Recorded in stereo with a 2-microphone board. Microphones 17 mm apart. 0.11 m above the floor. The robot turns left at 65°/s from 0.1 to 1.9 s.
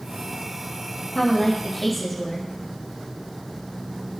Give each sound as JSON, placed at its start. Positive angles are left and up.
{"t": 1.1, "sound": "a woman speaking", "azimuth_deg": 50, "distance_m": 3.5}